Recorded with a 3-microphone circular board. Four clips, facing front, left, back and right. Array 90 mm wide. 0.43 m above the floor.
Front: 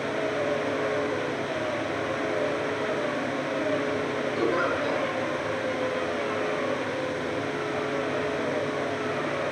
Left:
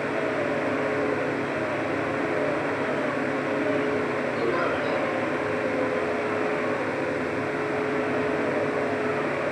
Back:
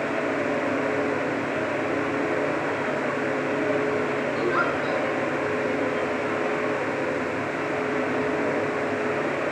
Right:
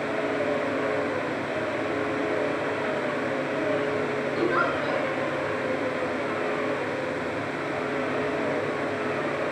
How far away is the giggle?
About 4.5 m.